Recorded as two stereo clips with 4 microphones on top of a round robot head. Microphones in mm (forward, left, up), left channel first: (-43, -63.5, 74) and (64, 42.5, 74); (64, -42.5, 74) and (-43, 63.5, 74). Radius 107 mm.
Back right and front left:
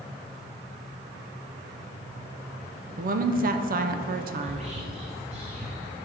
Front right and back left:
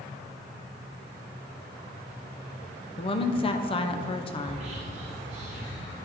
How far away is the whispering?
About 1.0 m.